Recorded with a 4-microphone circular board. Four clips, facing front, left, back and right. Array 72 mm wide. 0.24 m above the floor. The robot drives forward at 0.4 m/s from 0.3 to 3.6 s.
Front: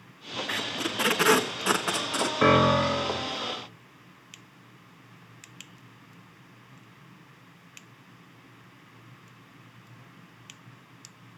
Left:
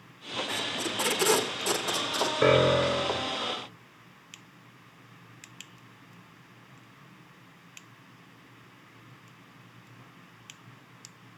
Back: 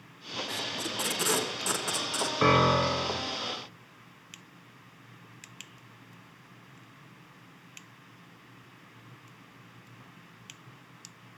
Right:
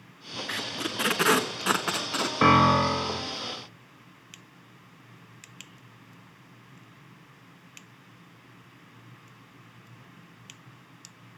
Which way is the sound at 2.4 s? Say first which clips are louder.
Right 3 dB, front 2 dB; 90° right.